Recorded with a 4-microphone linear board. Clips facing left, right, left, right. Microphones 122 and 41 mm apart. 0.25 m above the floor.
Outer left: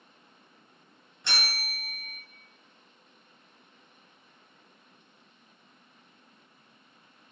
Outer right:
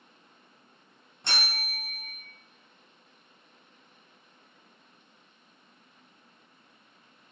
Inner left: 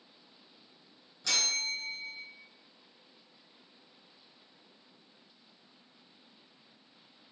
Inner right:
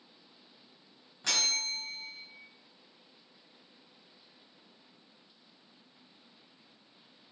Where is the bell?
40° right (ahead or behind), 1.3 m.